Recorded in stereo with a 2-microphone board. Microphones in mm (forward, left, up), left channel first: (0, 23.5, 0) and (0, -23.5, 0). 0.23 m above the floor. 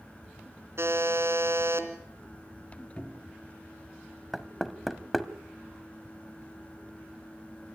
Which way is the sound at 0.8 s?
60° right (ahead or behind).